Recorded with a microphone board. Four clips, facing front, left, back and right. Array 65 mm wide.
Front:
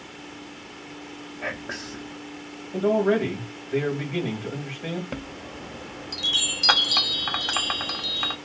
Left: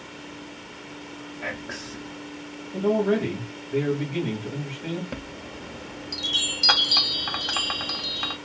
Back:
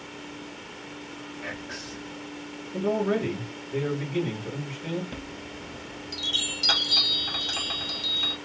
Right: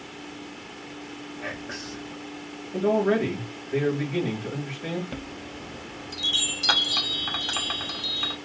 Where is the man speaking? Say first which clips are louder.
Even, front 4 dB; 15° right, 2.5 m.